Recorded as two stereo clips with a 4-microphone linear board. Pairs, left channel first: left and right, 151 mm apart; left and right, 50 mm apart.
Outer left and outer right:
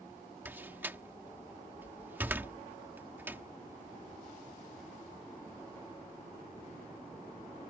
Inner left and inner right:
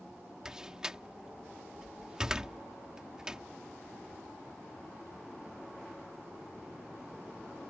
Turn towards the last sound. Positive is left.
turn(degrees=-15)  # may be behind; listen again after turning